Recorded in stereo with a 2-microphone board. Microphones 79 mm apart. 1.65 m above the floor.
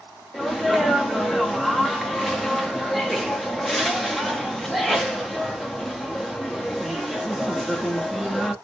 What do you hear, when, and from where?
0.3 s a sneeze: centre (ahead or behind), 0.7 m